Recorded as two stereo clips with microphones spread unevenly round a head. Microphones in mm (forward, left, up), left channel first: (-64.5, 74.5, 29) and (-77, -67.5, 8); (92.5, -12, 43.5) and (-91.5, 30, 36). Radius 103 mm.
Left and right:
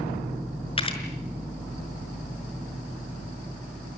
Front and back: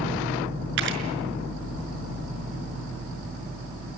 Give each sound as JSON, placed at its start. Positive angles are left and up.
{"t": 0.8, "sound": "a camera shutter", "azimuth_deg": 135, "distance_m": 5.5}